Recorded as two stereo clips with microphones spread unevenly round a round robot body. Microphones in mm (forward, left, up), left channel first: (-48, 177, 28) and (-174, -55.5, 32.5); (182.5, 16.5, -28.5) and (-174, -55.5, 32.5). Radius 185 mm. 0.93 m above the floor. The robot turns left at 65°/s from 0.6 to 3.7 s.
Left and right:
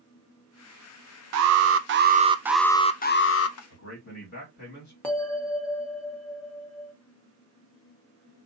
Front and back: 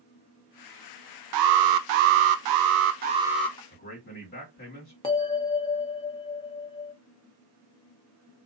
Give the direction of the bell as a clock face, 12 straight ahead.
1 o'clock.